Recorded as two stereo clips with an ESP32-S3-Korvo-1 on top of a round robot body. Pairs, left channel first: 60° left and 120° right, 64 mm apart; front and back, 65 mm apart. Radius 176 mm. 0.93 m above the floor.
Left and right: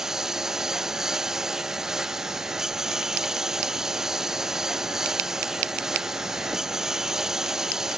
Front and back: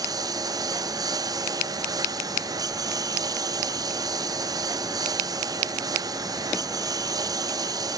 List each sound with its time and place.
0.0 s a lawn mower: 155° left